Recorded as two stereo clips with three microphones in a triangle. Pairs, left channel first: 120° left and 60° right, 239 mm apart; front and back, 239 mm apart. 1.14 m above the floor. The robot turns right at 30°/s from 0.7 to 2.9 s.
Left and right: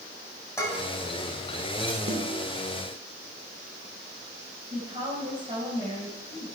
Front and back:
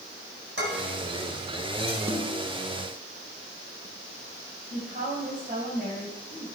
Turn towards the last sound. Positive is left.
turn(degrees=-120)